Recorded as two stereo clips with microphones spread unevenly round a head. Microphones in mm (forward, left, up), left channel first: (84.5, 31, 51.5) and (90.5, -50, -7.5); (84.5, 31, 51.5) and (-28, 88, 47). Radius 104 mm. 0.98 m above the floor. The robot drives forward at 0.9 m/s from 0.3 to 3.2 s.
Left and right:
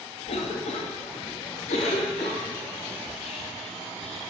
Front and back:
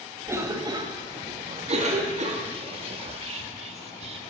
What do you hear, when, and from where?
0.3 s a cough: 85° left, 1.8 m; by 2.4 s 135° left, 2.5 m
3.0 s whispering: 145° left, 1.0 m; by 4.2 s 150° left, 1.1 m